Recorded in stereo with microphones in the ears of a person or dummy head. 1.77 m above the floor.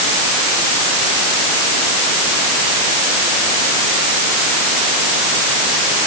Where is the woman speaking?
No woman speaking in this recording.